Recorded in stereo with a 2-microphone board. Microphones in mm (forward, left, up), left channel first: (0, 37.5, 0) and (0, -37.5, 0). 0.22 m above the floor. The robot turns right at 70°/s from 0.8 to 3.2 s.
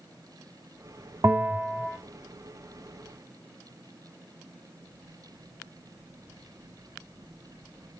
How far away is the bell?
About 0.7 m.